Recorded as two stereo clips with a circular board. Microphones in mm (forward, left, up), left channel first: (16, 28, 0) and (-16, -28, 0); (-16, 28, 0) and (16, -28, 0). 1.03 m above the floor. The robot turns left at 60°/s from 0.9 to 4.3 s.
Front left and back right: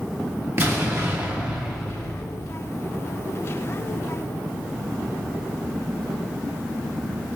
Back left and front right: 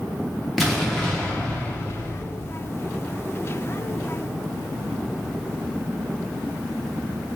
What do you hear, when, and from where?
0.6 s an explosion: 155° right, 0.6 m; by 2.5 s 105° left, 0.6 m